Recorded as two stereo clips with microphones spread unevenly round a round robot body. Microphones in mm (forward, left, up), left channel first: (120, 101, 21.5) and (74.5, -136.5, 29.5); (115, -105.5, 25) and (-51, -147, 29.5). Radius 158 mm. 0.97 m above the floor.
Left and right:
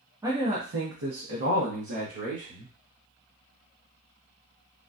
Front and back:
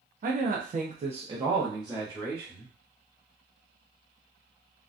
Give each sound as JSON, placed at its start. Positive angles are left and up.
{"t": 0.2, "sound": "a man speaking", "azimuth_deg": 180, "distance_m": 0.7}